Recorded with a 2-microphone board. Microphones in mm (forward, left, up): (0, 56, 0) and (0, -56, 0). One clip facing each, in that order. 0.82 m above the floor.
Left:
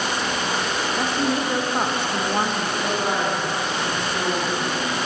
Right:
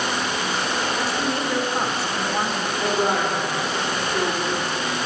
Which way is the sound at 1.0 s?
20° left (ahead or behind).